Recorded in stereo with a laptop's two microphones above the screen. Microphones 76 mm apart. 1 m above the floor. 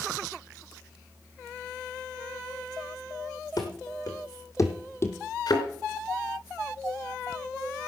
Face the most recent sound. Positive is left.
turn(degrees=60)  # may be behind; listen again after turning